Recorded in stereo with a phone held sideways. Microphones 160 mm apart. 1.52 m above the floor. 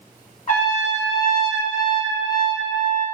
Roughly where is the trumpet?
Left.